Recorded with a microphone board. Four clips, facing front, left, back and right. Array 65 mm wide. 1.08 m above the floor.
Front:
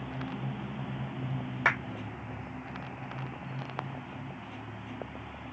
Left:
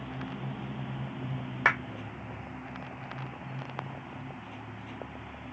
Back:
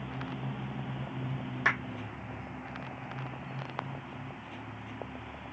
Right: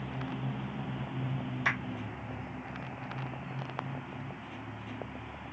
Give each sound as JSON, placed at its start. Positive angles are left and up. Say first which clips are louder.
{"t": 1.6, "sound": "a clap", "louder": "left 6 dB, front 1 dB", "azimuth_deg": 70, "distance_m": 1.2}